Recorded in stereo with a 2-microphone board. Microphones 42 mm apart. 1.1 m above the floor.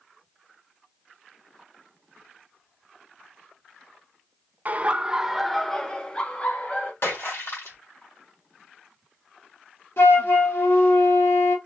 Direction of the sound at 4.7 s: 40° right (ahead or behind).